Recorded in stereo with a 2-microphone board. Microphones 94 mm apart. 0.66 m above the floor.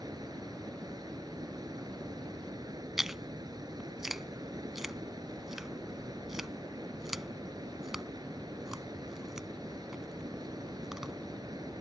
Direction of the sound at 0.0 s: 50° right (ahead or behind).